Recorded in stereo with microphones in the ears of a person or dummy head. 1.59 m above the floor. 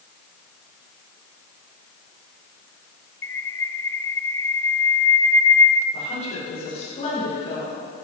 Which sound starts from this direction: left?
A woman speaking, at 5.9 s.